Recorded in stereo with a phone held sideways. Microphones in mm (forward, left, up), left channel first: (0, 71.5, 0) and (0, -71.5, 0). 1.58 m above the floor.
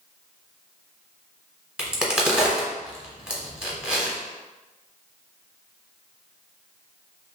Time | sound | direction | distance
1.8 | a crack | 5° right (ahead or behind) | 0.8 m